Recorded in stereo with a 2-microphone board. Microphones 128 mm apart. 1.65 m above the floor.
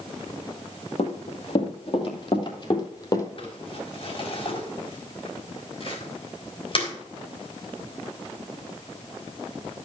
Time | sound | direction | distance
1.0 | running footsteps | 55° left (ahead or behind) | 3 m
3.4 | crumpling | 45° left (ahead or behind) | 4 m